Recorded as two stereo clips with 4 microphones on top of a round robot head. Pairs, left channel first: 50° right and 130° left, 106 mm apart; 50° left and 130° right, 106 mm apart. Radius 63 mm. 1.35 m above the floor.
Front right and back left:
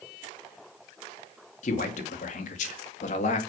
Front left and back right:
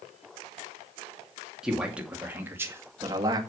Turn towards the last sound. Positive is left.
turn(degrees=-75)